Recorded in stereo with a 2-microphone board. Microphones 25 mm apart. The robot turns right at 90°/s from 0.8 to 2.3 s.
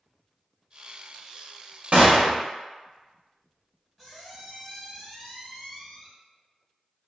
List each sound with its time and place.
1.9 s a gunshot: 85° right, 0.6 m; by 2.4 s 55° right, 0.6 m
4.0 s a squeak: 10° right (ahead or behind), 1.4 m